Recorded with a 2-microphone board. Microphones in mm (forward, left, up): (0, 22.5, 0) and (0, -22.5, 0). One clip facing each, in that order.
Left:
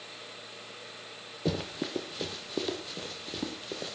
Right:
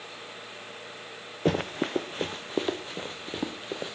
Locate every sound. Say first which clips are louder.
1.4 s running footsteps: right 6 dB; 45° right (ahead or behind), 1.3 m; by 4.0 s 25° right (ahead or behind), 2.5 m